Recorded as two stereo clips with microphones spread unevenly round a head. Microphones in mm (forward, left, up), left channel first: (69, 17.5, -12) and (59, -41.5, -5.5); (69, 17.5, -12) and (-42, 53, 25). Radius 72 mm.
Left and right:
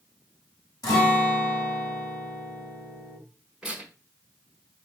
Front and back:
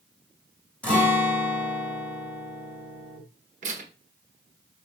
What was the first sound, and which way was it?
A guitar, 65° left.